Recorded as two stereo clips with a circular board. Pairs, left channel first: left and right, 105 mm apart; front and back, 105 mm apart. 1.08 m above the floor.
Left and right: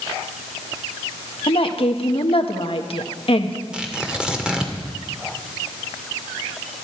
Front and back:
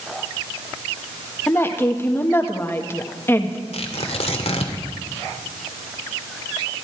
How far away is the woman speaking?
About 1.5 m.